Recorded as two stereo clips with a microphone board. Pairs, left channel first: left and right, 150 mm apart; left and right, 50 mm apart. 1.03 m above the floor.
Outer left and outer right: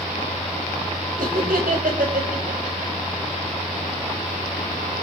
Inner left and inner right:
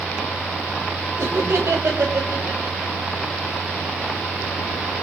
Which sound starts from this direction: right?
Laughter, at 1.2 s.